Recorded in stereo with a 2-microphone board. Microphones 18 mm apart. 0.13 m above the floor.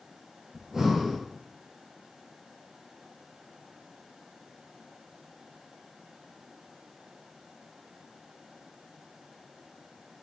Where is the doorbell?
I don't hear a doorbell.